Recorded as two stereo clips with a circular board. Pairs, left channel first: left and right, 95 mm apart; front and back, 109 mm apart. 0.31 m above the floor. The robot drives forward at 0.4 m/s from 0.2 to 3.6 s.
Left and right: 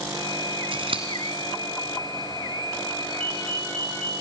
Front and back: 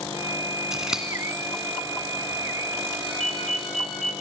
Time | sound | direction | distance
0.7 | scissors | 95° right | 2.5 m
3.0 | a ringtone | 85° right | 5 m